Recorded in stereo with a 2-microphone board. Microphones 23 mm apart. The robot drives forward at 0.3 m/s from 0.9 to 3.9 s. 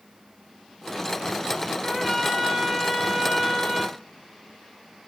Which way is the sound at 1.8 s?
5° left (ahead or behind).